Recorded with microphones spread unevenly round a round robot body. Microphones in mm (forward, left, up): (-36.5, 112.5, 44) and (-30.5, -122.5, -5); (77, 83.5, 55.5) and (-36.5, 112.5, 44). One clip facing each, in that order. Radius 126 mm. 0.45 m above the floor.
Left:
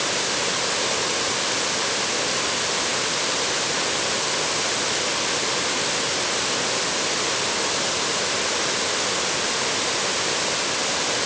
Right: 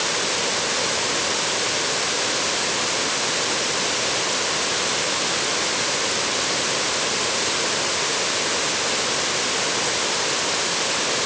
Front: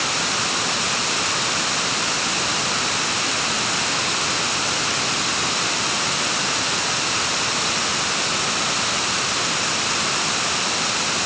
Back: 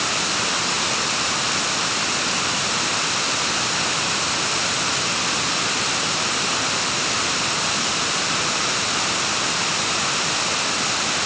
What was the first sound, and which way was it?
Only background noise.